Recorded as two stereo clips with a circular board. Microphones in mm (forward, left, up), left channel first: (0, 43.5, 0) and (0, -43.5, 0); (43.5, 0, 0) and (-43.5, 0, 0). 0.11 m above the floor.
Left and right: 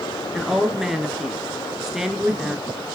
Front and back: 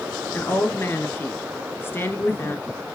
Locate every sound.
0.3 s a woman speaking: 10° right, 1.4 m